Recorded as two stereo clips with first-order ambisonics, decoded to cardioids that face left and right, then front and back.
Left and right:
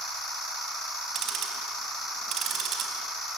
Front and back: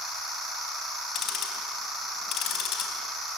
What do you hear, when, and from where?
1.1 s ticking: 40° right, 4 m